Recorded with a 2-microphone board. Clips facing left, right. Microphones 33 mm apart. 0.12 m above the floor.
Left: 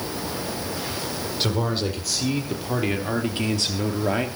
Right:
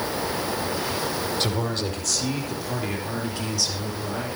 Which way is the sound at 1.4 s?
10° left (ahead or behind).